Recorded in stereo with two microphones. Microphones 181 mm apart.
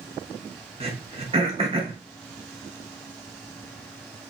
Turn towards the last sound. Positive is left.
turn(degrees=-35)  # may be behind; listen again after turning